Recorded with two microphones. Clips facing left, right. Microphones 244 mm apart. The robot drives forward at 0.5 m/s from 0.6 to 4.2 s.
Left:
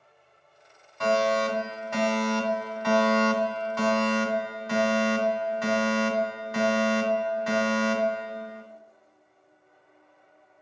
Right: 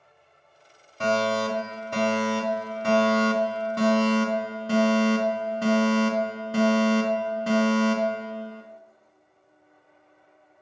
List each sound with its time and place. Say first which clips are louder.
1.0 s a fire alarm: even; 35° right (ahead or behind), 2.5 m